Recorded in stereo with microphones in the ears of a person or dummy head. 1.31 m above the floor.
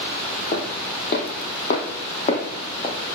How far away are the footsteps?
About 2.0 m.